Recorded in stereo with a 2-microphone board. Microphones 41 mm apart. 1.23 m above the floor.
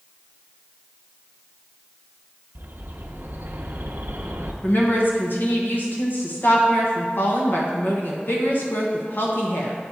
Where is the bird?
55° right (ahead or behind), 0.7 m.